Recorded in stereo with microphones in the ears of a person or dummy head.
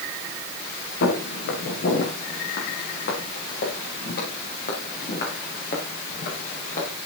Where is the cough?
I don't hear a cough.